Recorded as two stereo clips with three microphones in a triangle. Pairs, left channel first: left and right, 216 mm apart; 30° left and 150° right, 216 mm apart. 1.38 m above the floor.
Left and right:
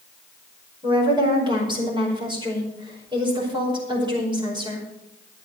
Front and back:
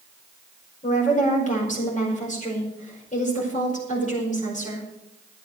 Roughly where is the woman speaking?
Ahead.